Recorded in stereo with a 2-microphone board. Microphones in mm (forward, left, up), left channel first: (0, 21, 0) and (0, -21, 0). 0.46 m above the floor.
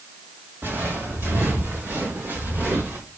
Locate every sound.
0.6 s footsteps: 60° right (ahead or behind), 5.5 m; by 3.0 s 45° right (ahead or behind), 4.5 m